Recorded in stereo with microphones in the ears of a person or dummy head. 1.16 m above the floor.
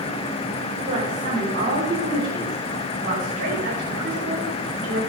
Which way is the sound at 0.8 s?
50° right (ahead or behind).